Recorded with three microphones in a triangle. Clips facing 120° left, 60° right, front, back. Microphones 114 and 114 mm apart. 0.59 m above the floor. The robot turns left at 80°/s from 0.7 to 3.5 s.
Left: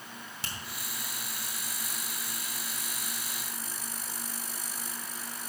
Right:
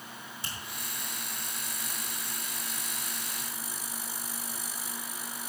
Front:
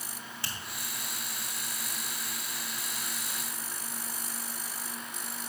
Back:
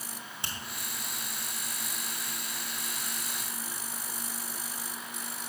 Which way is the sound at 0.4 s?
110° left.